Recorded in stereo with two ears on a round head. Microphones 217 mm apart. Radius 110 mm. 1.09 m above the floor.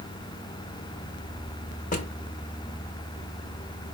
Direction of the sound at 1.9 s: 30° left (ahead or behind).